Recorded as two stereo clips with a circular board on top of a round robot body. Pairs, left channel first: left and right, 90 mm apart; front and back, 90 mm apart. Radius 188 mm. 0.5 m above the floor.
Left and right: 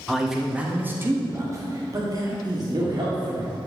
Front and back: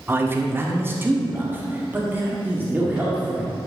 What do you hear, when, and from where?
0.1 s a man speaking: straight behind, 1.3 m; by 3.5 s 110° right, 2.5 m